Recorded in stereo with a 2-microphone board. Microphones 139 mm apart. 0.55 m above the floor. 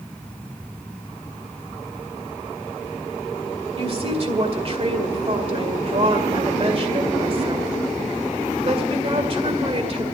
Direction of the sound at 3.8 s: 45° right (ahead or behind).